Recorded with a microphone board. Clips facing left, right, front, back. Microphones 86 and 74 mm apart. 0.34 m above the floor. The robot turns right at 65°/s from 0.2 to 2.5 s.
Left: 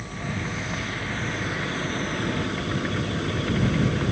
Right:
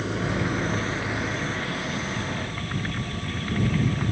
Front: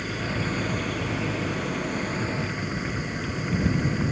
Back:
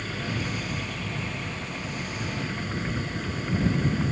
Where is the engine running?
75° right; by 4.1 s 75° left.